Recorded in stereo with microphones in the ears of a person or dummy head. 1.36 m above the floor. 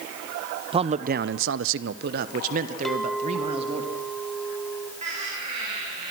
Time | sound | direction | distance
0.7 | a man speaking | 25° right (ahead or behind) | 0.9 m
2.9 | a clink | 5° left (ahead or behind) | 1.6 m
5.0 | laughter | 40° right (ahead or behind) | 6 m